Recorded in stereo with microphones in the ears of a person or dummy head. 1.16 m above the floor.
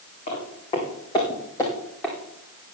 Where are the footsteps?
40° left (ahead or behind), 4.5 m; by 2.1 s 5° left (ahead or behind), 3.5 m.